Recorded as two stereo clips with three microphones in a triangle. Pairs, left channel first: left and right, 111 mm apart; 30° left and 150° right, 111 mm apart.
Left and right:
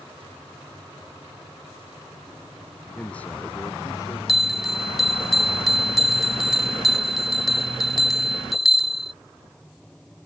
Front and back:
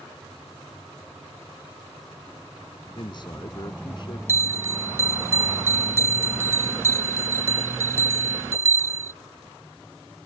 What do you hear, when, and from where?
3.0 s a man speaking: 10° left; by 4.2 s 50° left
4.3 s a bell: 175° right